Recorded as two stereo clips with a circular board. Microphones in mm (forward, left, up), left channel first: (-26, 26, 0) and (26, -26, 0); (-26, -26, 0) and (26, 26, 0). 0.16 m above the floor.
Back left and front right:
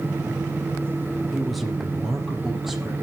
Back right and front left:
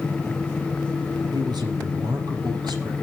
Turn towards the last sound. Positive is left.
turn(degrees=40)